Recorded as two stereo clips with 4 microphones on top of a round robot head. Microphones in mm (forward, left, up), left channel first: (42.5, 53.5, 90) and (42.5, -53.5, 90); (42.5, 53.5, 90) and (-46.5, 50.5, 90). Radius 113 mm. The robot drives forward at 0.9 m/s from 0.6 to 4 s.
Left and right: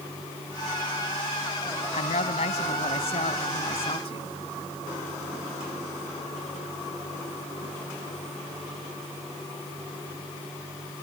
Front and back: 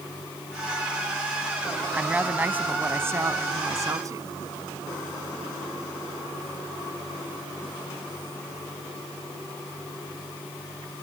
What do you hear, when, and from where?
1.9 s a woman speaking: 105° left; by 4.3 s 130° left